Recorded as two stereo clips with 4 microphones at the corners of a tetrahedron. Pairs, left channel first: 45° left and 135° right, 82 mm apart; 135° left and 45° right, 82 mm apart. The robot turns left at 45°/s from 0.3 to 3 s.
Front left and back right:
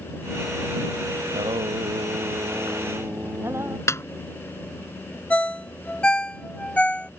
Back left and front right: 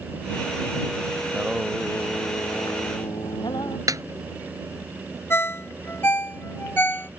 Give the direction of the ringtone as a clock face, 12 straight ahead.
8 o'clock.